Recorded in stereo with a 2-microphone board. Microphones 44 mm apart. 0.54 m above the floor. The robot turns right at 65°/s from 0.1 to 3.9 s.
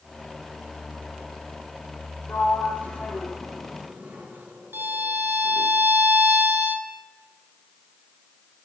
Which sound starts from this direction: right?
A violin, at 4.7 s.